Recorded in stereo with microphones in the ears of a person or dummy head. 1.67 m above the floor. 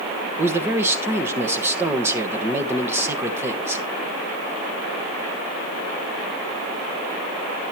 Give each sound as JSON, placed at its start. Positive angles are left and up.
{"t": 0.4, "sound": "a man speaking", "side_deg": -15, "distance_m": 1.4}